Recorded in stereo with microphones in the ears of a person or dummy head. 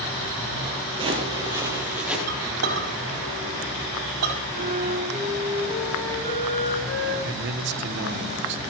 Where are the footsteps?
30° right (ahead or behind), 2.5 m; by 2.2 s 5° right (ahead or behind), 3 m.